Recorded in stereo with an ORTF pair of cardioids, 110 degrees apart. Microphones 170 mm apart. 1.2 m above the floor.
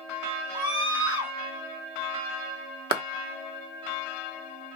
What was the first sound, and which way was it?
A scream, 25° right.